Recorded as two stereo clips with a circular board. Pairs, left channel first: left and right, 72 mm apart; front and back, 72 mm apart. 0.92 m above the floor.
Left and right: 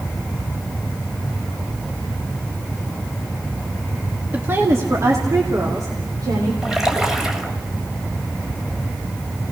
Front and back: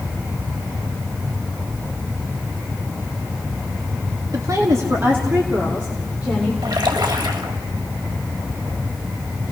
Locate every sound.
4.3 s a woman speaking: 150° right, 1.9 m; by 6.5 s 105° right, 4 m
6.6 s a splash: 170° right, 2.5 m